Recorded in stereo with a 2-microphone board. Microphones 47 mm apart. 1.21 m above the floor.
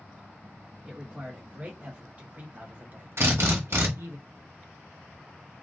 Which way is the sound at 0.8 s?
20° right (ahead or behind).